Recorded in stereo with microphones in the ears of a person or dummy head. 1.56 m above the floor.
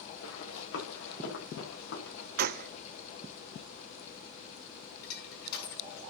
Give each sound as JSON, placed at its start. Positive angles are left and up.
{"t": 0.2, "sound": "running footsteps", "side_deg": 75, "distance_m": 8.0}
{"t": 2.4, "sound": "a gunshot", "side_deg": -50, "distance_m": 0.6}
{"t": 5.0, "sound": "crushing", "side_deg": 60, "distance_m": 9.0}